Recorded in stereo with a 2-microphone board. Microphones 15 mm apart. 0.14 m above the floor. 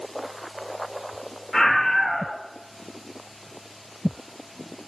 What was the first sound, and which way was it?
A scream, centre (ahead or behind).